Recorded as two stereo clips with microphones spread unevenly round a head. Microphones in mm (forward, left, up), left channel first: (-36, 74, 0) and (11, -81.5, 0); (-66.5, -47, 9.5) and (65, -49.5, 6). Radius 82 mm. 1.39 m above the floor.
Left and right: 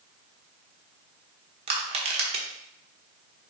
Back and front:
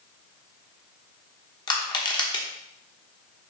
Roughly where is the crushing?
Behind right.